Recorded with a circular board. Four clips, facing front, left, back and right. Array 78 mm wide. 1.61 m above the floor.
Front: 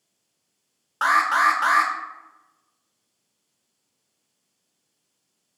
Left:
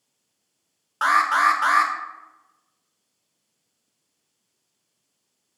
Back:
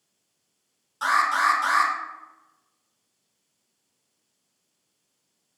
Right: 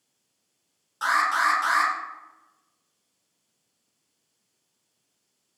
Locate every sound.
1.0 s an alarm: 40° left, 1.7 m